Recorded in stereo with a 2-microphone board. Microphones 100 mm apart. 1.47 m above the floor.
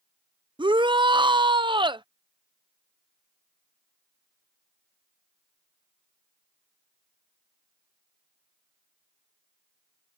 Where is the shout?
55° right (ahead or behind).